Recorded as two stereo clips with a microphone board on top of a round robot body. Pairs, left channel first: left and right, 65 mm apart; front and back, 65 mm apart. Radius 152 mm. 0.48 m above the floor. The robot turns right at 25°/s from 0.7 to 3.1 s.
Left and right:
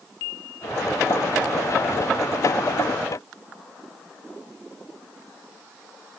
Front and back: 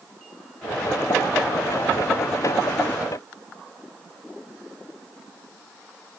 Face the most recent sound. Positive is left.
No sound to turn to.